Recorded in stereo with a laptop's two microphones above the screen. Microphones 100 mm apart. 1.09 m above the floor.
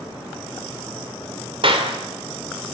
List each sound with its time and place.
1.6 s a clap: 60° right (ahead or behind), 2.5 m